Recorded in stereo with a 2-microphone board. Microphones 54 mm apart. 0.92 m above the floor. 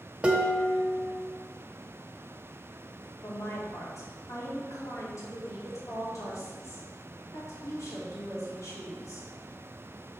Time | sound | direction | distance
0.2 | dishes clattering | 20° right (ahead or behind) | 0.9 m
3.2 | a woman speaking | 75° left (ahead or behind) | 2.5 m